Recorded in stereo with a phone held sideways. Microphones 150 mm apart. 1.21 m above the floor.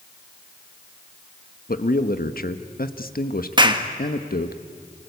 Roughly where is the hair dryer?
No hair dryer in this recording.